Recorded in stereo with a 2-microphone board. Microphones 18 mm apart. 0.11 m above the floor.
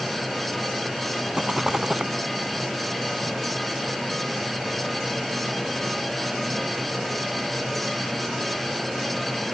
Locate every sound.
1.3 s a rattle: 35° right (ahead or behind)